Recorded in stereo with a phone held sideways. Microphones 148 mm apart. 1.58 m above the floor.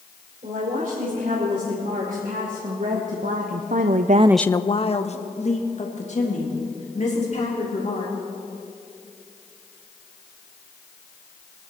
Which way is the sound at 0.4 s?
60° right (ahead or behind).